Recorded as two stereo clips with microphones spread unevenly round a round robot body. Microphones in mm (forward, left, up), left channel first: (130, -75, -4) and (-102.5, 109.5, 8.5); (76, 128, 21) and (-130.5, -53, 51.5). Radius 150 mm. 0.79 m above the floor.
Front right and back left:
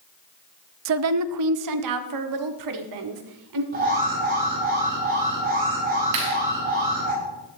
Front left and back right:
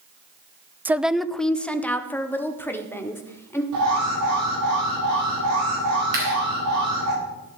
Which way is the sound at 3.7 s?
155° right.